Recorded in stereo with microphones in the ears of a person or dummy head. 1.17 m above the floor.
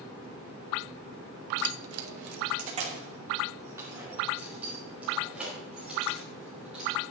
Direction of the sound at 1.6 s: 70° right (ahead or behind).